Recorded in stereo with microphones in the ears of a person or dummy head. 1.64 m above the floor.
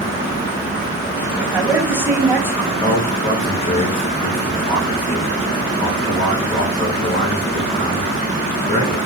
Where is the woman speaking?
10° right (ahead or behind), 1.4 m.